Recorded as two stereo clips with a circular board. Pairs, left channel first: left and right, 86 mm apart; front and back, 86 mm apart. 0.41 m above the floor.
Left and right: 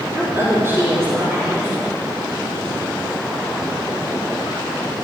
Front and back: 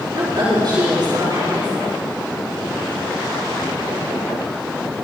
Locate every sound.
0.1 s a woman speaking: 145° right, 6 m